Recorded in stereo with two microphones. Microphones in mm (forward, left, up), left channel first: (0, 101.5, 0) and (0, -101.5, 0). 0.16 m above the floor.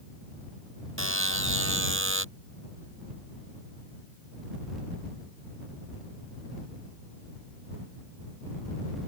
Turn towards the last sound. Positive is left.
turn(degrees=-70)  # may be behind; listen again after turning